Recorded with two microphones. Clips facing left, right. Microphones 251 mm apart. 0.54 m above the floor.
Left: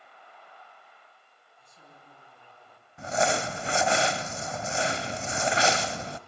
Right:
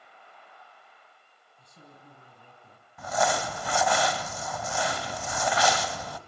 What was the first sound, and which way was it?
A woman speaking, 45° right (ahead or behind).